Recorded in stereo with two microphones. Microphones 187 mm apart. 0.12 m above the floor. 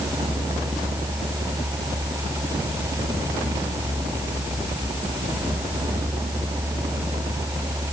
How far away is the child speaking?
No child speaking in this recording.